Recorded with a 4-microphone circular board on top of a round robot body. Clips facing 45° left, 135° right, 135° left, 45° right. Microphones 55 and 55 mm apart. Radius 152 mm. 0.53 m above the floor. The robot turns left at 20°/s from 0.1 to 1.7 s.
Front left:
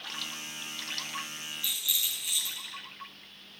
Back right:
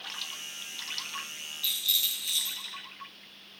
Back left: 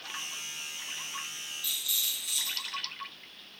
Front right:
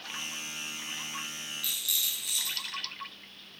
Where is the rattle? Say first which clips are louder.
Back right 3 dB, back left 1 dB; 25° right, 5.5 m; by 2.8 s 30° right, 5.5 m.